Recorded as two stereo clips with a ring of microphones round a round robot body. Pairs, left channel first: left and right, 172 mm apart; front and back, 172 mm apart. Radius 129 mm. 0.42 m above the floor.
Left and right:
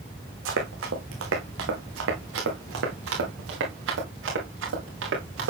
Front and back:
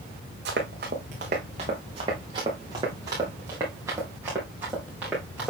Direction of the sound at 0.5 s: 125° right.